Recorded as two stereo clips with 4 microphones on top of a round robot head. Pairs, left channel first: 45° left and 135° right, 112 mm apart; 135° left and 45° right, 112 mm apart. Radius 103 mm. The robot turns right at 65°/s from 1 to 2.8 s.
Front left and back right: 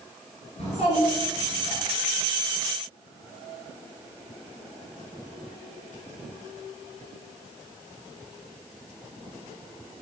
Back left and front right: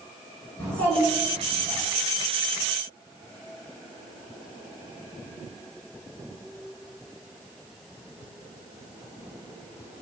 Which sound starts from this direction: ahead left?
A child speaking, at 0.6 s.